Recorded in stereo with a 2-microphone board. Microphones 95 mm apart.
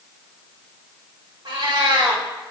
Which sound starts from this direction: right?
A cat meowing, at 1.4 s.